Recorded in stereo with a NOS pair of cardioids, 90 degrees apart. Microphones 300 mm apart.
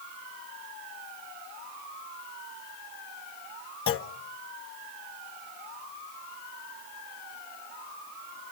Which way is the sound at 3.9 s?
45° left.